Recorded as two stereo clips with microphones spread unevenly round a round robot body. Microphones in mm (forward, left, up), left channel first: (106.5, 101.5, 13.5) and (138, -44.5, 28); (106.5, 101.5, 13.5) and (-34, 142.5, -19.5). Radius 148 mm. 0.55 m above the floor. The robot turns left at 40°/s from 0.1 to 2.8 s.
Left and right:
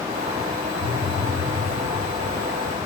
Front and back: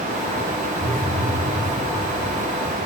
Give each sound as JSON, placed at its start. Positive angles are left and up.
{"t": 0.8, "sound": "a phone buzzing", "azimuth_deg": -95, "distance_m": 1.0}